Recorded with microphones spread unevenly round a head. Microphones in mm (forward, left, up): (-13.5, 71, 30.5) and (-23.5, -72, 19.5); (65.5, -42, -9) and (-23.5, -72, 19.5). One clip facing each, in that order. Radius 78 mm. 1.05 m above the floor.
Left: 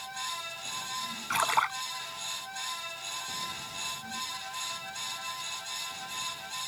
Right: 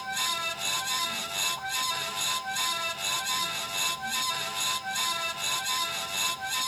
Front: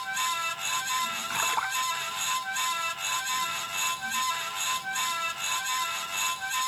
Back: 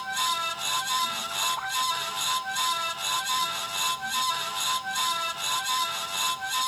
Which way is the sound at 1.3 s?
65° left.